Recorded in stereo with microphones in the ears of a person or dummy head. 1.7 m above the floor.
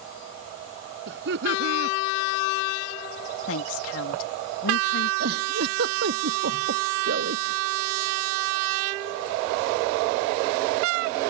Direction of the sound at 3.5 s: 85° left.